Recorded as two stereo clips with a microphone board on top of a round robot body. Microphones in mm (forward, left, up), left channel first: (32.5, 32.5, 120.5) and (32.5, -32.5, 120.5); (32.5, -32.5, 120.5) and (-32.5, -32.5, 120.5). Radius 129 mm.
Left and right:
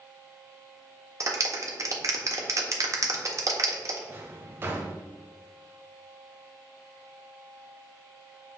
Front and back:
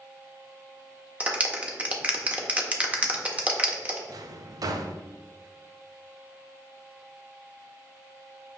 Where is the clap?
115° right, 1.5 m.